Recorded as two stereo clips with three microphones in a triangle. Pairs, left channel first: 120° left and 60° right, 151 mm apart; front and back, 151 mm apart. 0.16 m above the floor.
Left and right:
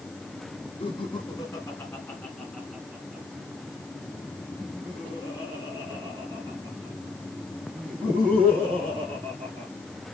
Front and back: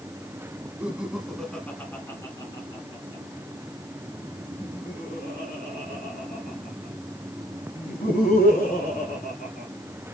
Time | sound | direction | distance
0.8 | laughter | 105° left | 1.4 m